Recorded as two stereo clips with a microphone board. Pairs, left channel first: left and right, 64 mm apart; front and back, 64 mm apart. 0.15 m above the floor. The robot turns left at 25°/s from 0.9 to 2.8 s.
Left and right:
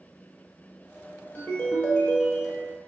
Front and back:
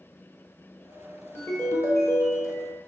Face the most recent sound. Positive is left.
turn(degrees=0)